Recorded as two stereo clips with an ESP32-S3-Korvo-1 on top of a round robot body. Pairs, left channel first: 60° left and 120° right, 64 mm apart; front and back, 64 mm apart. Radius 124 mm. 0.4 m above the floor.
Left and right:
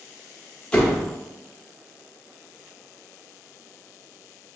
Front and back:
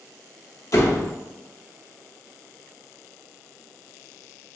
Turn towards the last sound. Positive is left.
turn(degrees=-10)